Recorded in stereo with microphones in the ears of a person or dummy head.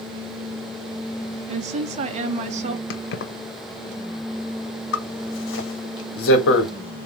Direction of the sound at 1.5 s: 45° right (ahead or behind).